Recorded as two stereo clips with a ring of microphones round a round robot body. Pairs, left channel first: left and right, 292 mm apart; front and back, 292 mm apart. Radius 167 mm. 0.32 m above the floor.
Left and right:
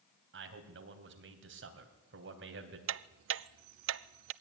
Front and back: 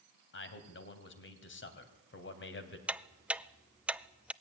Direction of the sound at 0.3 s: 45° right.